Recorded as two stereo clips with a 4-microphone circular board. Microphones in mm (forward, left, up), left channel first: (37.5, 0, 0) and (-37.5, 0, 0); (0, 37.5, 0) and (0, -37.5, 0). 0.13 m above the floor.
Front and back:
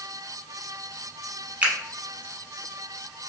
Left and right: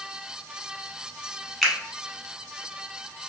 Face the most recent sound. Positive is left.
turn(degrees=175)